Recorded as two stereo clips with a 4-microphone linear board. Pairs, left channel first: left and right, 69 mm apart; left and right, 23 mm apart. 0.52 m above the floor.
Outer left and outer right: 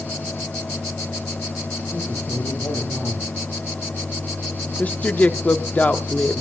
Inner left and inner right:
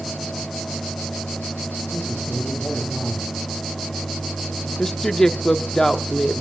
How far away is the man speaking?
About 9 m.